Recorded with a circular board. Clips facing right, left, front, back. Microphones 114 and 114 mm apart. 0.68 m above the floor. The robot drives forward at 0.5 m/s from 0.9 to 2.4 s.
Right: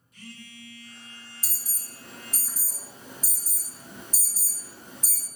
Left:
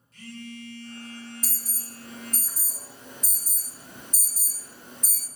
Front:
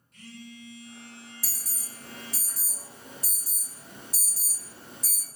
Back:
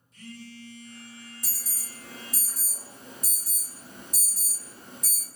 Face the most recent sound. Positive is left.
turn(degrees=-170)